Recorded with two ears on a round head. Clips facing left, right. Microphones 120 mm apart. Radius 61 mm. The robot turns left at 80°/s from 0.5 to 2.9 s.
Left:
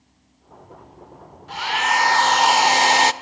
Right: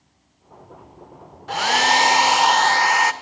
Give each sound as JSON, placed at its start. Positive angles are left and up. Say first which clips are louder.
{"t": 1.5, "sound": "a hair dryer", "louder": "right 3 dB", "azimuth_deg": -105, "distance_m": 0.9}